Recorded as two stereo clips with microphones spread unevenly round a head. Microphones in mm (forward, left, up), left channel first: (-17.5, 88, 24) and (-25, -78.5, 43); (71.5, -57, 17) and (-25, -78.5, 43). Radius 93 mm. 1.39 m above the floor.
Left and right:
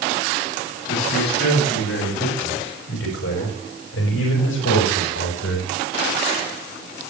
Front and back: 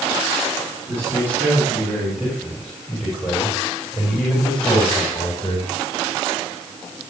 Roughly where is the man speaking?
Left.